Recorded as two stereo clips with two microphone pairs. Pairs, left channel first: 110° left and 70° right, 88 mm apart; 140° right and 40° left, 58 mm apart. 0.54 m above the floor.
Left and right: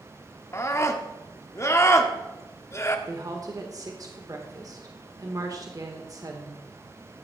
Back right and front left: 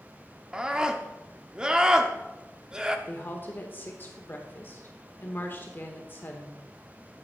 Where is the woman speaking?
100° right, 1.4 m.